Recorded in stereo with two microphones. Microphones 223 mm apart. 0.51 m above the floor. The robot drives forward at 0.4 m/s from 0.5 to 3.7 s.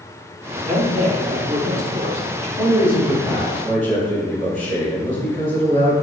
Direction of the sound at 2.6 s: 30° right (ahead or behind).